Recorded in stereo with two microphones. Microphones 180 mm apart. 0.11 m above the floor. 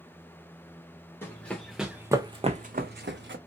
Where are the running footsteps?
10° left (ahead or behind), 1.0 m; by 3.4 s 80° right, 0.7 m.